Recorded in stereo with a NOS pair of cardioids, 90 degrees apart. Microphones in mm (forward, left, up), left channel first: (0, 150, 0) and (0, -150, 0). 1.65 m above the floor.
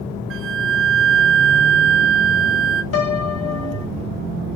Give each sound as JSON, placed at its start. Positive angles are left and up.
{"t": 0.3, "sound": "a flute", "azimuth_deg": -45, "distance_m": 0.8}
{"t": 2.9, "sound": "a piano", "azimuth_deg": 50, "distance_m": 1.6}